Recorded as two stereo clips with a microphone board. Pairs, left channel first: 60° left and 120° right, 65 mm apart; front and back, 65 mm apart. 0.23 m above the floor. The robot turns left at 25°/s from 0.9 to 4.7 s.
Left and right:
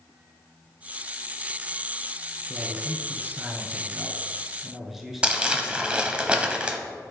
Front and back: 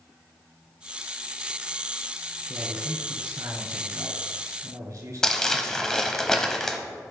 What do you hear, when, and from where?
2.5 s a man speaking: 150° right, 2.5 m; by 6.2 s 155° left, 2.5 m
5.2 s crumpling: 70° right, 0.9 m